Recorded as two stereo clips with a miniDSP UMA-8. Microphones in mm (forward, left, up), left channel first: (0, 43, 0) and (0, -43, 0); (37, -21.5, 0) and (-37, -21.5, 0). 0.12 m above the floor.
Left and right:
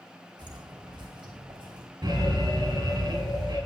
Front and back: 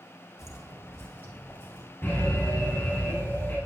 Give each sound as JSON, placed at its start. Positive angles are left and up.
{"t": 0.4, "sound": "footsteps", "azimuth_deg": -55, "distance_m": 3.5}
{"t": 2.0, "sound": "an alarm", "azimuth_deg": -55, "distance_m": 7.0}